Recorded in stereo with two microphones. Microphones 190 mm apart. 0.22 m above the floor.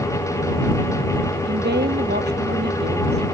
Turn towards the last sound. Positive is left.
turn(degrees=-60)  # may be behind; listen again after turning